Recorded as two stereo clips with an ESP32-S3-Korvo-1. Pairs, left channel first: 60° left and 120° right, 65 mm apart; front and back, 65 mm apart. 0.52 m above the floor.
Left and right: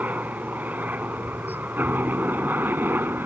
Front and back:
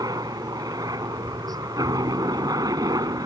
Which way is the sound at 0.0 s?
175° left.